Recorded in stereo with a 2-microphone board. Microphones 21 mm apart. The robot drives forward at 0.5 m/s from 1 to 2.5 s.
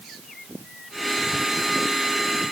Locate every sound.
Only background noise.